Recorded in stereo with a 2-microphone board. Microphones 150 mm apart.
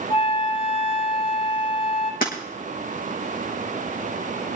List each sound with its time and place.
0.1 s a flute: 35° left (ahead or behind), 2.5 m
2.2 s breaking glass: 70° left (ahead or behind), 4 m